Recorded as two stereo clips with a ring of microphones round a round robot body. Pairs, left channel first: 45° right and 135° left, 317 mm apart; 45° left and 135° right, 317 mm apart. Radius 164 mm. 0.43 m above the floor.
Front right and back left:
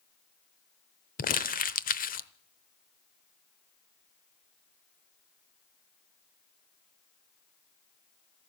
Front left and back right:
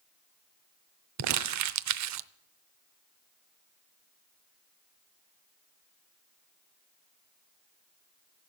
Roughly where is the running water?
No running water in this recording.